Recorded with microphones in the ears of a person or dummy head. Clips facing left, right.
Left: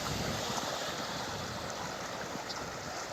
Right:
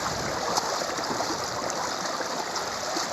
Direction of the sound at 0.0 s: 80° right.